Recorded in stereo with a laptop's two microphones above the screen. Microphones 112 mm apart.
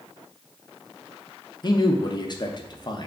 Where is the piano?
I don't hear a piano.